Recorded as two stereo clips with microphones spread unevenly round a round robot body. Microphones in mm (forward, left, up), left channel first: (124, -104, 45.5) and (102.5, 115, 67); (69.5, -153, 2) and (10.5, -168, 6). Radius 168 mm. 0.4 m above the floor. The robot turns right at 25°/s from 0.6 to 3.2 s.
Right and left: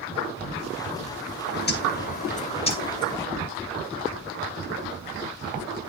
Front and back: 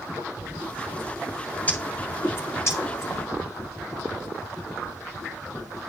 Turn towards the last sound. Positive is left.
turn(degrees=-10)